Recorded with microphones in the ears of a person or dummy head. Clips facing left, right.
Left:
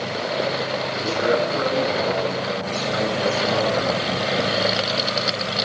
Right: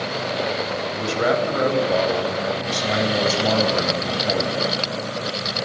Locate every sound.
0.9 s a man speaking: 80° right, 8 m